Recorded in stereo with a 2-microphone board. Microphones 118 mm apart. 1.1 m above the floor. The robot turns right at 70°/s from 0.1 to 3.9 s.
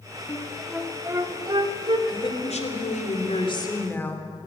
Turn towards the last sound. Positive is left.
turn(degrees=165)